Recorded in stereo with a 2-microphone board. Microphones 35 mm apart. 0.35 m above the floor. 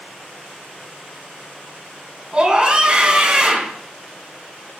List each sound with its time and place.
2.3 s a scream: 30° right (ahead or behind), 3 m